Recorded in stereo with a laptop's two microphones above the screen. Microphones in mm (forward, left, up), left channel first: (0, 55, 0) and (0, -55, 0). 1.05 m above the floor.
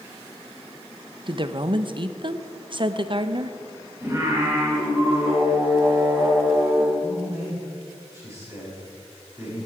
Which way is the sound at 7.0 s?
25° right (ahead or behind).